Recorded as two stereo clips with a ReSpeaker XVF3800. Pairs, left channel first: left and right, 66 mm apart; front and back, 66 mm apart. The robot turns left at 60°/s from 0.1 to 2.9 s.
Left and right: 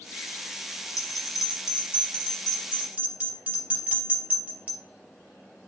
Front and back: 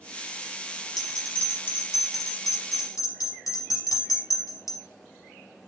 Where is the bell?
95° left, 4 m; by 4.8 s 20° right, 4 m.